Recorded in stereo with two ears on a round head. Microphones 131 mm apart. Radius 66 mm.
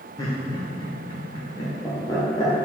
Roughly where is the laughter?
Left.